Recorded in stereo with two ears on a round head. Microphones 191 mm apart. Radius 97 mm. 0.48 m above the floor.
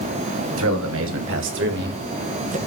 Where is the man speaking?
65° right (ahead or behind), 3 m; by 2.6 s 30° right (ahead or behind), 1.9 m.